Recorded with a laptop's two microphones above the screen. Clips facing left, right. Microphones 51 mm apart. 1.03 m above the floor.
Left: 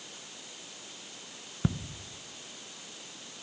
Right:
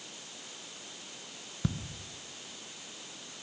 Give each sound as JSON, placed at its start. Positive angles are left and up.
{"t": 1.6, "sound": "ticking", "side_deg": 20, "distance_m": 0.9}